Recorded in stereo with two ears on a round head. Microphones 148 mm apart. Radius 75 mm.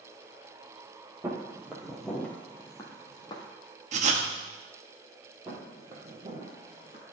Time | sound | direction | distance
1.2 | footsteps | 15° right (ahead or behind) | 1.5 m
3.9 | writing | 45° right (ahead or behind) | 0.9 m
5.5 | footsteps | 20° right (ahead or behind) | 2 m